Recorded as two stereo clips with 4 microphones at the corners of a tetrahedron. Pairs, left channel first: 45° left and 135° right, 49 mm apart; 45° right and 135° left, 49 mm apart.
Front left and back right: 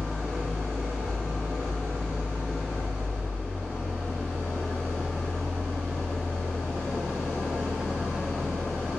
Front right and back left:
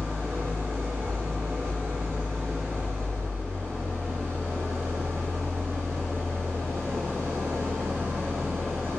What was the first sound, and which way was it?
An engine running, 135° left.